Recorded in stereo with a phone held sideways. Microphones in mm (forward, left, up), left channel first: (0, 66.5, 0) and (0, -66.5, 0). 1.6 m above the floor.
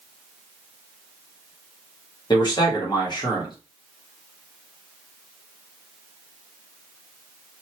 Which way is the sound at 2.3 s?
35° left (ahead or behind).